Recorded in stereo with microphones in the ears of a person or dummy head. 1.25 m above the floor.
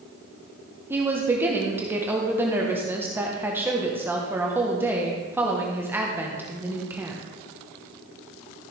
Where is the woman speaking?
5° right (ahead or behind), 1.3 m.